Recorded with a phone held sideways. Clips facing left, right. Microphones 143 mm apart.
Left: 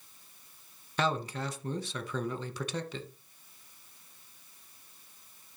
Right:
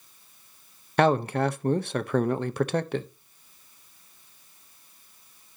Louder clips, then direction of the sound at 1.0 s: Right 10 dB; 60° right (ahead or behind).